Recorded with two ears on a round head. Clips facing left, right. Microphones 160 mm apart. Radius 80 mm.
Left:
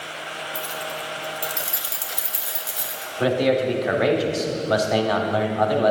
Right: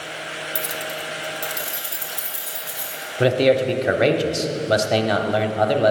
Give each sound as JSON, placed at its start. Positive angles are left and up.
{"t": 0.6, "sound": "keys jangling", "side_deg": -30, "distance_m": 0.8}
{"t": 3.2, "sound": "a man speaking", "side_deg": -30, "distance_m": 0.8}